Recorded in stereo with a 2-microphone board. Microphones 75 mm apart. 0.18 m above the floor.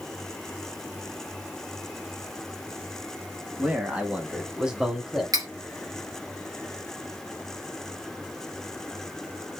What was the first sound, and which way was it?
A man speaking, 25° right (ahead or behind).